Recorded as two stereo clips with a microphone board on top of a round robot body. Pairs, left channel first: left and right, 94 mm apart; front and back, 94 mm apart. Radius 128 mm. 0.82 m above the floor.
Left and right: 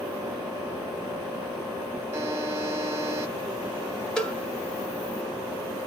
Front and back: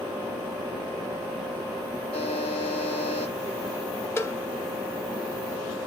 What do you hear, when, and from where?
2.1 s a buzzer: 25° right, 0.9 m
4.2 s a cowbell: 20° left, 1.1 m